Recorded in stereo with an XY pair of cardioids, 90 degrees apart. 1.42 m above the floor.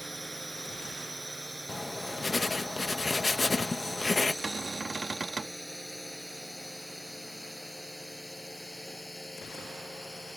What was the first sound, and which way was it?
A drone, 20° right.